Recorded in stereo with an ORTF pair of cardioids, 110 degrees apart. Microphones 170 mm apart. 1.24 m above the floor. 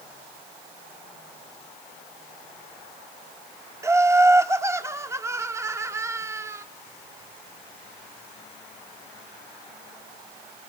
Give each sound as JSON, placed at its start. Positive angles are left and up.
{"t": 3.8, "sound": "laughter", "azimuth_deg": -15, "distance_m": 1.0}